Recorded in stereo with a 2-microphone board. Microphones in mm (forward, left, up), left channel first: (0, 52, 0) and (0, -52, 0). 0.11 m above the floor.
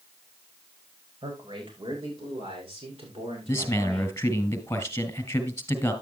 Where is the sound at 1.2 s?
60° right (ahead or behind), 7 m; by 4.1 s 70° right (ahead or behind), 9.5 m.